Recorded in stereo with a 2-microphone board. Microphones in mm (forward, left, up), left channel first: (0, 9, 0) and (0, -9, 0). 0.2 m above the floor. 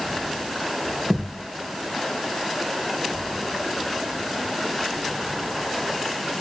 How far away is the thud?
About 3.5 m.